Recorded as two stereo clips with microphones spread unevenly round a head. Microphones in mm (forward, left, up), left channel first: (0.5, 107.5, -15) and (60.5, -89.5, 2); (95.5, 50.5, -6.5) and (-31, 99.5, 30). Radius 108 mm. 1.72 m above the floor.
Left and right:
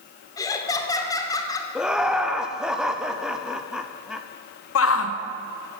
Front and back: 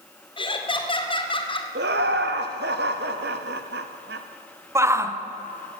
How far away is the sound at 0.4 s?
About 2.5 m.